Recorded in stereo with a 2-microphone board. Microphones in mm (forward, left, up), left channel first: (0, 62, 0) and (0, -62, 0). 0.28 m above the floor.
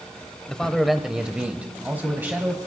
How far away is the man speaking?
About 0.9 m.